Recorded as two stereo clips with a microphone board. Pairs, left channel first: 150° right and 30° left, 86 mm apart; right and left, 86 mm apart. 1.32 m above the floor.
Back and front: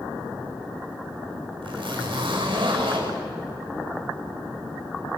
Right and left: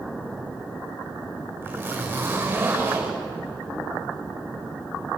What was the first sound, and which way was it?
A zipper, 25° left.